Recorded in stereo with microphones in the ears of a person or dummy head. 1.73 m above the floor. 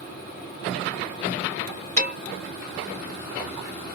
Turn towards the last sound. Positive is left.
turn(degrees=-40)  # may be behind; listen again after turning